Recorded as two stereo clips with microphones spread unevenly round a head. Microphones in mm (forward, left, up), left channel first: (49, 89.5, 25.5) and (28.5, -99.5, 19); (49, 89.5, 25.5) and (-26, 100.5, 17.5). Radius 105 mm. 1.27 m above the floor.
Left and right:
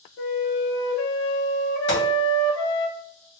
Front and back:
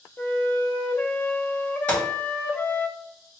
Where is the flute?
65° left, 0.6 m.